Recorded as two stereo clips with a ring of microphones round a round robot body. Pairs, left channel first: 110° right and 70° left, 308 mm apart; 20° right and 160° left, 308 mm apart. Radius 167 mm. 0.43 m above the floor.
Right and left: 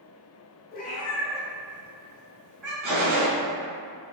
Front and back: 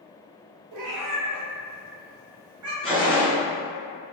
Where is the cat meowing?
175° right, 0.7 m; by 2.7 s 125° left, 1.3 m.